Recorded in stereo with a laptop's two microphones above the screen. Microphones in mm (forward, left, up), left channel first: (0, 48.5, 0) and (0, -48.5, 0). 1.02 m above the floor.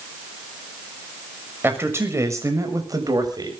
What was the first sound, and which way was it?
A man speaking, 25° right (ahead or behind).